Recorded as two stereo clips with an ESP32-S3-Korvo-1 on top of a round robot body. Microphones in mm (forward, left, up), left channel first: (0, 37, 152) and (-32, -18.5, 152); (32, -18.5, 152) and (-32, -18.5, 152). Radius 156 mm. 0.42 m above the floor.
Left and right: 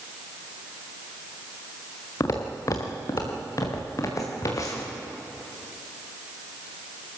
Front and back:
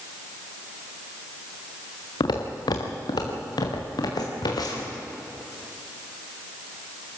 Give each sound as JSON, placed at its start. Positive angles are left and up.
{"t": 2.2, "sound": "footsteps", "azimuth_deg": 15, "distance_m": 2.5}